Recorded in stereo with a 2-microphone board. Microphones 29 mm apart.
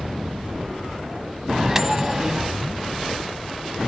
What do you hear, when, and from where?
1.5 s a microwave: 15° right (ahead or behind), 1.0 m